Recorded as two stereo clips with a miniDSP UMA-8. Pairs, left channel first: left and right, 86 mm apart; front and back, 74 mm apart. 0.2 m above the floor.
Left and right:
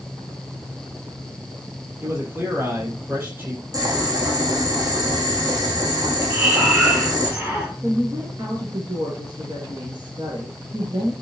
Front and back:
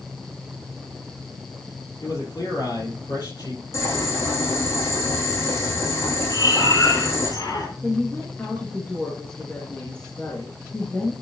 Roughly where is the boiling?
Ahead right.